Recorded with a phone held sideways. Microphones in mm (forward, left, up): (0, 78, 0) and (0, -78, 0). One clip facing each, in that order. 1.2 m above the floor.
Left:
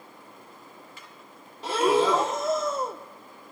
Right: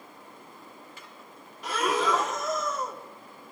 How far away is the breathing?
About 0.9 m.